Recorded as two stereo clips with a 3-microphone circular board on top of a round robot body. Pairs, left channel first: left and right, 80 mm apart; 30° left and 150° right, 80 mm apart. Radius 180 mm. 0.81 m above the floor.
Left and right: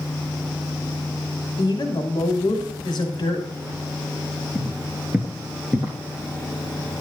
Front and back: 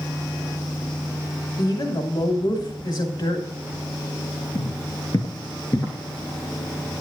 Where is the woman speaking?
55° left, 2.5 m.